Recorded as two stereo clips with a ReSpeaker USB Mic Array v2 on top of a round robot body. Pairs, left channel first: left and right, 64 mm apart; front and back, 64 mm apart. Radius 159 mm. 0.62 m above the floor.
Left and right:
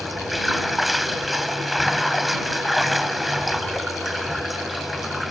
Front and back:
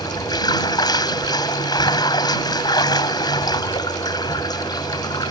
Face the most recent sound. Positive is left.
turn(degrees=0)